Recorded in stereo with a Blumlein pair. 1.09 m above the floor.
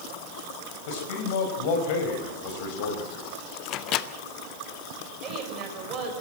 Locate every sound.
0.9 s a man speaking: 50° left, 5 m
3.6 s a microwave: 35° left, 0.8 m
5.2 s a woman speaking: 30° right, 6 m